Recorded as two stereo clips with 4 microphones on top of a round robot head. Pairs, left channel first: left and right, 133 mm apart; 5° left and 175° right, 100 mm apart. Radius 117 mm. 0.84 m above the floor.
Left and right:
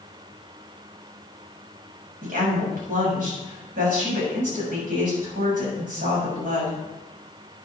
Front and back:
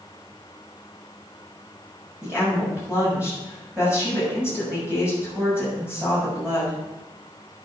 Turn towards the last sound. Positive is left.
turn(degrees=-95)